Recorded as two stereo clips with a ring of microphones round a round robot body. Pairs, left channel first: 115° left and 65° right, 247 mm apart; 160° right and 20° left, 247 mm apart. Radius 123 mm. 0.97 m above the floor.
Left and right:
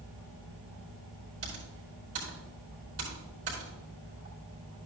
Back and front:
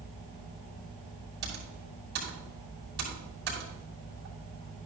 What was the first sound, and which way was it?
Typing on a keyboard, 25° right.